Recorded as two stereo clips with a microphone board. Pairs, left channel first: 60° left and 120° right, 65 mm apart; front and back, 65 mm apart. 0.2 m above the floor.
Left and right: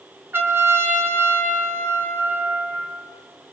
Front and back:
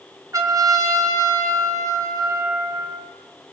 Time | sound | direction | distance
0.3 | a trumpet | 165° right | 2.5 m